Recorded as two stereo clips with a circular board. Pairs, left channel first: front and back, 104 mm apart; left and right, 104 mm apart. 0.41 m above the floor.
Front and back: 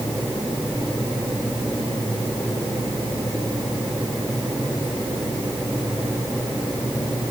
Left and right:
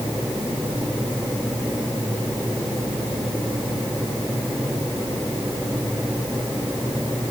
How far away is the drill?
I don't hear a drill.